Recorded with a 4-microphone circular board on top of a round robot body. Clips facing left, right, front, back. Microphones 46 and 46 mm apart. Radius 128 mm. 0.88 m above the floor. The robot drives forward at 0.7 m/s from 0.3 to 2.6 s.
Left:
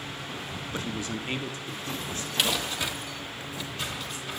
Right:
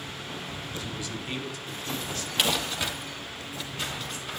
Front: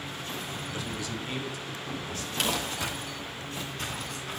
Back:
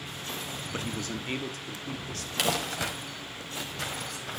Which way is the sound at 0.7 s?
135° left.